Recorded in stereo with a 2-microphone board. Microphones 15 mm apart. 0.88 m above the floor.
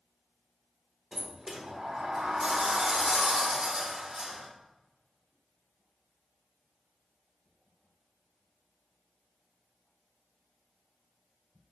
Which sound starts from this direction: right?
A sliding door, at 1.1 s.